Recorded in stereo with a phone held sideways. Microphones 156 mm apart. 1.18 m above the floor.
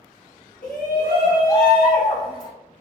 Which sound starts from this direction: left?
A shout, at 0.6 s.